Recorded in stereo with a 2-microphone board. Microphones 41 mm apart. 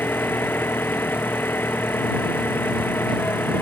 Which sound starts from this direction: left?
An engine running, at 0.0 s.